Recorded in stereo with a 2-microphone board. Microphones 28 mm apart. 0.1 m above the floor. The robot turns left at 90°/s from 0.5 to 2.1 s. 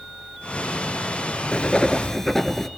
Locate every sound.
1.5 s writing: 75° left, 1.3 m; by 2.7 s 20° left, 1.3 m